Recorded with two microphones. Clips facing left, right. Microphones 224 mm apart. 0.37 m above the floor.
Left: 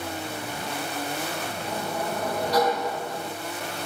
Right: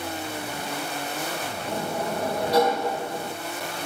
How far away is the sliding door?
About 3.5 m.